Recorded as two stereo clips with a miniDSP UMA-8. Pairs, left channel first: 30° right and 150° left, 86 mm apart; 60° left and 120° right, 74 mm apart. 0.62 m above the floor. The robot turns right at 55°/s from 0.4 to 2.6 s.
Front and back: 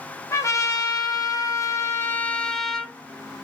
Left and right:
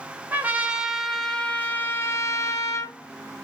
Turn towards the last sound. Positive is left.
turn(degrees=55)